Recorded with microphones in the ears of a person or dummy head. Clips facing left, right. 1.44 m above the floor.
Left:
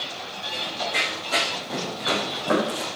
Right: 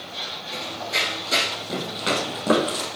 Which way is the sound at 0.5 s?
25° right (ahead or behind).